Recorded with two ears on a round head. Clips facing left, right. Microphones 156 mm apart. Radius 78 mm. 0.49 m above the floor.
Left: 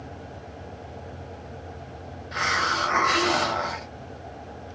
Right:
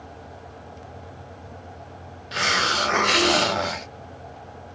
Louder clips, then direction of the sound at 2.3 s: Right 2 dB; 35° right (ahead or behind).